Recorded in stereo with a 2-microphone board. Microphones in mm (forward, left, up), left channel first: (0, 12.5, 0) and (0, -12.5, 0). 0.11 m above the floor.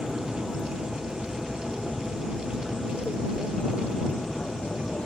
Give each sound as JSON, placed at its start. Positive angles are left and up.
{"t": 0.0, "sound": "an aircraft", "side_deg": -10}